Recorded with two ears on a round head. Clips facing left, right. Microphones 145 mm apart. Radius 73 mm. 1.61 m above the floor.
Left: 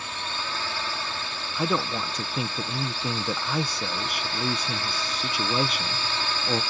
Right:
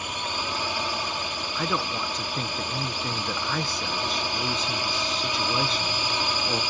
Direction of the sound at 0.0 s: 15° right (ahead or behind).